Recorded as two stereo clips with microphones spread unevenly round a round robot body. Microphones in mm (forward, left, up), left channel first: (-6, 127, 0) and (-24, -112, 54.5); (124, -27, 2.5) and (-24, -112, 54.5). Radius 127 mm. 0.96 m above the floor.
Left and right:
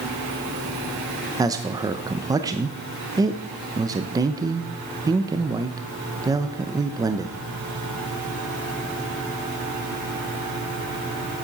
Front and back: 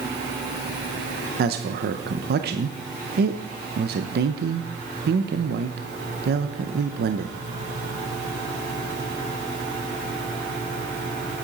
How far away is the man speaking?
About 0.8 m.